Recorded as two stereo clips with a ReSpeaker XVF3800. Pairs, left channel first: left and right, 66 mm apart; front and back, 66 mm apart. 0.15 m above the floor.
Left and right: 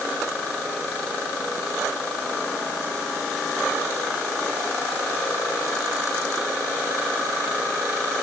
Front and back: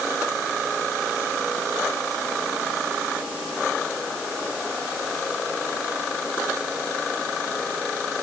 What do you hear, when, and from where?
Only background noise.